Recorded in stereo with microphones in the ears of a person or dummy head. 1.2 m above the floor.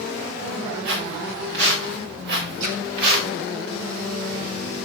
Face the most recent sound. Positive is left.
turn(degrees=-85)